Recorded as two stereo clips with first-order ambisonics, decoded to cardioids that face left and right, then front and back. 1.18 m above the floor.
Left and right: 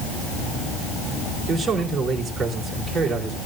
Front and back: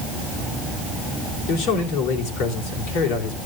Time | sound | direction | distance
1.5 | a man speaking | 15° right | 3.5 m